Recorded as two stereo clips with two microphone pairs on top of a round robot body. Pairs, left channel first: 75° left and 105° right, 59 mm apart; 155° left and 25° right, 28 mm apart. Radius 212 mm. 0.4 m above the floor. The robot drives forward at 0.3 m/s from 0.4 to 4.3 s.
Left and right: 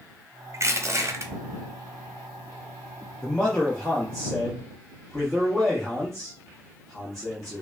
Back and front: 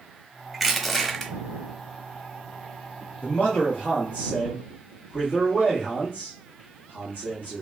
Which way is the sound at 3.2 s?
150° left.